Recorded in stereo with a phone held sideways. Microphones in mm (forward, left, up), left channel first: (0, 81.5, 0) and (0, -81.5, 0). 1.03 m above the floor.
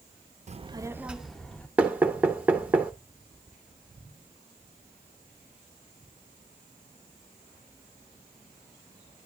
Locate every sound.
0.5 s a child speaking: 45° right (ahead or behind), 0.5 m; by 1.7 s 10° left (ahead or behind), 1.3 m
1.8 s knocking: 10° right (ahead or behind), 1.0 m